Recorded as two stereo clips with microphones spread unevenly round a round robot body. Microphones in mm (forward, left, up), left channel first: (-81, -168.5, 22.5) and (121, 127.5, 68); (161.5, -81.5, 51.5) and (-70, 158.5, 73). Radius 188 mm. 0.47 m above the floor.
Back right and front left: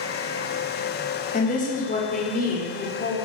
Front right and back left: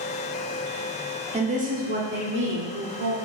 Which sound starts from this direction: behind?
A woman speaking, at 1.3 s.